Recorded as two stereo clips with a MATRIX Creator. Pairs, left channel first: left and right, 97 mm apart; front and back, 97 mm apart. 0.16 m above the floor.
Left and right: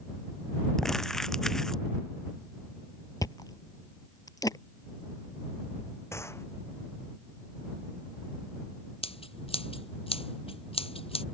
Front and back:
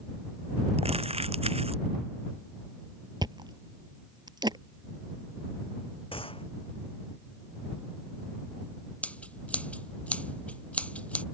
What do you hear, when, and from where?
0.8 s crumpling: 175° left
3.2 s chewing: 140° left
6.1 s a gunshot: 25° left
9.0 s scissors: 80° left